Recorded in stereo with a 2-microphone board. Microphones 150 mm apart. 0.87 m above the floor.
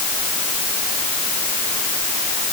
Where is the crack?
No crack in this recording.